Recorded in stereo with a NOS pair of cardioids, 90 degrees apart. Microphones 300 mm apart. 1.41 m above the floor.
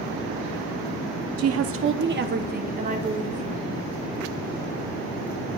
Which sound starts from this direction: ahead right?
A woman speaking, at 1.4 s.